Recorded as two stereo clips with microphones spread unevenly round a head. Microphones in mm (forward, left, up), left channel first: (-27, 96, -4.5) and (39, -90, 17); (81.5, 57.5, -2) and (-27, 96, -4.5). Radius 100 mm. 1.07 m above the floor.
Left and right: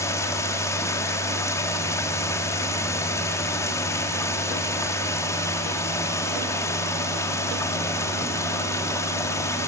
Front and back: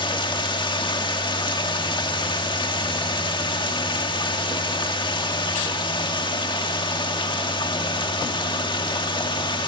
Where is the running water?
30° left, 1.7 m.